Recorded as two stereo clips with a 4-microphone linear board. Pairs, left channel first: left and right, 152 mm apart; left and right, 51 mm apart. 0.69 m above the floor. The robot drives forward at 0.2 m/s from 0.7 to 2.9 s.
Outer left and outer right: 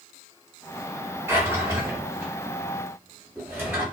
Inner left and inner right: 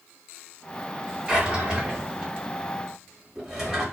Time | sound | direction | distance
1.3 | a drawer | 15° right (ahead or behind) | 0.9 m